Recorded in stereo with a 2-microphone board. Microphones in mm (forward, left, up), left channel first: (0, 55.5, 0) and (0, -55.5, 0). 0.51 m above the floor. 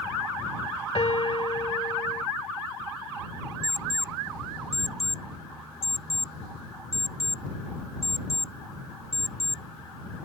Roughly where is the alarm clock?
Left.